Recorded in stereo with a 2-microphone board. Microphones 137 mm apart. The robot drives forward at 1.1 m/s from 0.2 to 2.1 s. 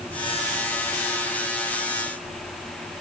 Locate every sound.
Only background noise.